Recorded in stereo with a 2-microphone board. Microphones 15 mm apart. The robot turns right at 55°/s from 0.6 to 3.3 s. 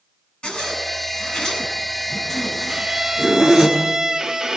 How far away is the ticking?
No ticking in this recording.